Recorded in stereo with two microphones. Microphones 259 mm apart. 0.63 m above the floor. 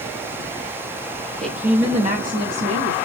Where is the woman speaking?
5° left (ahead or behind), 0.8 m; by 3.0 s 55° right (ahead or behind), 1.6 m.